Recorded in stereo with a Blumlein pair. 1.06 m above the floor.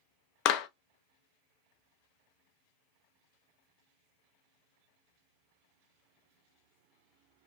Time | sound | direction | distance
0.5 | a clap | 40° left | 0.5 m